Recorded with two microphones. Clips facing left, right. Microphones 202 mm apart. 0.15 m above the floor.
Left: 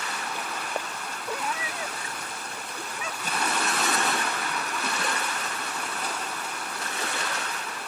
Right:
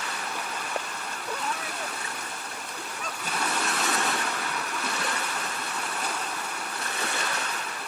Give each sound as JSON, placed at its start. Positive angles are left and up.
{"t": 1.3, "sound": "a cat meowing", "side_deg": 10}